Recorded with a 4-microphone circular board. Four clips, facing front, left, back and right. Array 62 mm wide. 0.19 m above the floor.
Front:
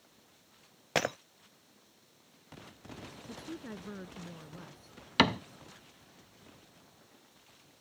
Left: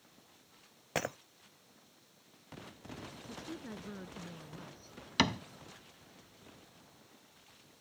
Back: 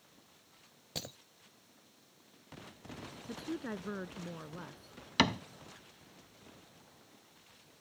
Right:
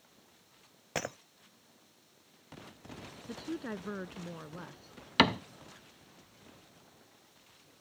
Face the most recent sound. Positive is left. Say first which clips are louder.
# right 5 dB, front 3 dB
turn(degrees=-60)